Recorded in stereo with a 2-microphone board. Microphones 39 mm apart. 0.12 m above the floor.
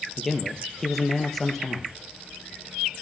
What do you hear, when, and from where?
0.2 s a man speaking: 5° left (ahead or behind), 3 m